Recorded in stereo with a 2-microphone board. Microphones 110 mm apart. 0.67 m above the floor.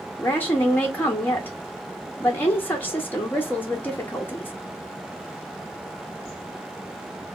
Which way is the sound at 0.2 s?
20° left (ahead or behind).